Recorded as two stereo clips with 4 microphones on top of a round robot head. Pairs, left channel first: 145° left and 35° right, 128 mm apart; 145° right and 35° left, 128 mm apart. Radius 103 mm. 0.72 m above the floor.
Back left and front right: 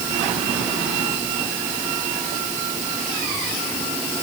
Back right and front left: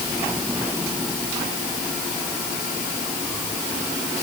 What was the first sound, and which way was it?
Only background noise.